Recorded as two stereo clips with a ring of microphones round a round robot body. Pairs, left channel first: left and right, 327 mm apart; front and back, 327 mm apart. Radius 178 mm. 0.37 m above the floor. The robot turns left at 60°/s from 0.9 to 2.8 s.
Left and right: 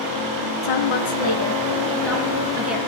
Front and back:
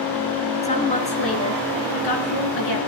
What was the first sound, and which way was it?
A woman speaking, 70° left.